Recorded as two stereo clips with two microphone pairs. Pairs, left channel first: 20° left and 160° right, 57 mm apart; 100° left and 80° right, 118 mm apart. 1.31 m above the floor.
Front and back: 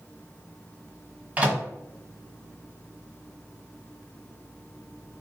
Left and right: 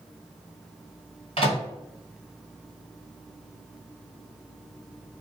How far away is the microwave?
About 1.4 m.